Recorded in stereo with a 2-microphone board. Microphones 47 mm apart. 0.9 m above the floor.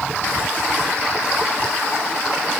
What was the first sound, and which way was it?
Only background noise.